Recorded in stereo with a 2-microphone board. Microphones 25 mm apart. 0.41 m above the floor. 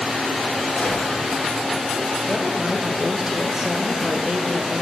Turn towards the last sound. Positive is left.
turn(degrees=-25)  # may be behind; listen again after turning